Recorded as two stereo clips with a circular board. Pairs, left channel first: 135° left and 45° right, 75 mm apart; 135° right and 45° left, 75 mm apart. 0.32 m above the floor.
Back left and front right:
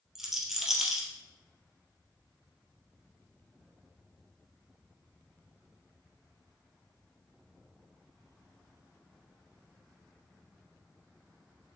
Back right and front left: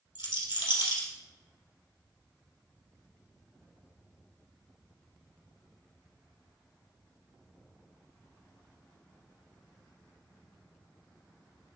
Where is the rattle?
130° right, 1.6 m.